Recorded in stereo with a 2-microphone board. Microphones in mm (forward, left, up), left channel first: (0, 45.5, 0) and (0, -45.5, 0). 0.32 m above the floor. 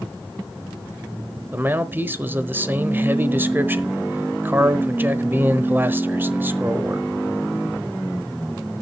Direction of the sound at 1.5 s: 25° right (ahead or behind).